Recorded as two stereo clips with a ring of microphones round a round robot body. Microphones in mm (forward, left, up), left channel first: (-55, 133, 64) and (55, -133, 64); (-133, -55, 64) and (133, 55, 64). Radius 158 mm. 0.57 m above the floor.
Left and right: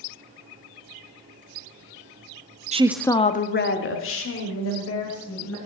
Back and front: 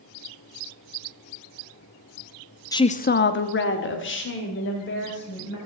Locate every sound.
2.7 s a woman speaking: 95° right, 0.6 m; by 5.6 s 150° left, 3 m